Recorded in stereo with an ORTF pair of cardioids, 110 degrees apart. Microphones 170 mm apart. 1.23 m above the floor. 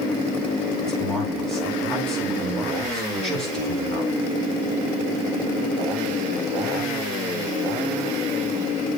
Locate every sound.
0.8 s a man speaking: 5° left, 8.5 m